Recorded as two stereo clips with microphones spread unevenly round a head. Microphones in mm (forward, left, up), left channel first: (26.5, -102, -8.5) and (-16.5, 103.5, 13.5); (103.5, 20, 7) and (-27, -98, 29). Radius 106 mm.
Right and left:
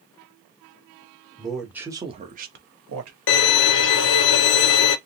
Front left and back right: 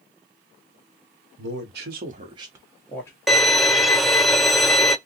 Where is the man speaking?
160° right, 1.0 m; by 3.2 s 110° left, 0.9 m.